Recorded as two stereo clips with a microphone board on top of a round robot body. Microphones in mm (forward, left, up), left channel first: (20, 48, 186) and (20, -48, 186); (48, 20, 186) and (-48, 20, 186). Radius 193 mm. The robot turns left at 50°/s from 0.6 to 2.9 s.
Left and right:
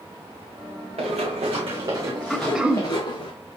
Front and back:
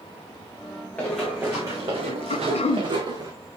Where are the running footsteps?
75° right, 2.5 m; by 3.3 s 130° left, 2 m.